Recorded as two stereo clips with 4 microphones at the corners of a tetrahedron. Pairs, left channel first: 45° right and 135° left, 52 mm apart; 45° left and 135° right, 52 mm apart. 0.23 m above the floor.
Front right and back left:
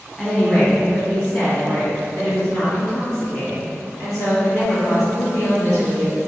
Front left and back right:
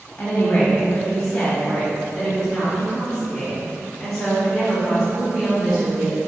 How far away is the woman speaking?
About 1.7 m.